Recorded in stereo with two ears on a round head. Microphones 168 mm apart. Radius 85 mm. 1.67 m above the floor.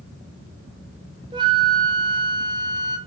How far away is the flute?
About 0.9 m.